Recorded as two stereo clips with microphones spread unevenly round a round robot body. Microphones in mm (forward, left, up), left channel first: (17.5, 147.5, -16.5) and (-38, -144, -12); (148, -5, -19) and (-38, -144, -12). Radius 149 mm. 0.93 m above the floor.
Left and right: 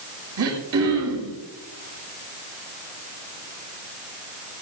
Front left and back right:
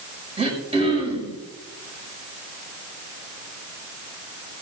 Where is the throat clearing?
75° right, 5 m.